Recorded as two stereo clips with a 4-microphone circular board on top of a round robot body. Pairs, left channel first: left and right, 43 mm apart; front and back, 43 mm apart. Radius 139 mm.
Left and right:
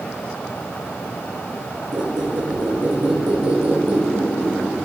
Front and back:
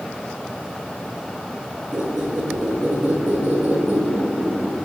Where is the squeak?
120° right, 1.9 m.